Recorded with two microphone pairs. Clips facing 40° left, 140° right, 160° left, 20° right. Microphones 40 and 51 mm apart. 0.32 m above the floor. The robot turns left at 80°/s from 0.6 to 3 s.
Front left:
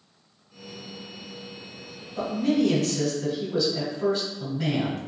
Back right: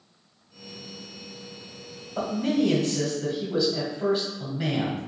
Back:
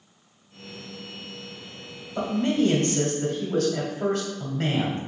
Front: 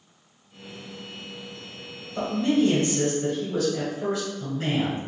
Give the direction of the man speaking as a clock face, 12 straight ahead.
5 o'clock.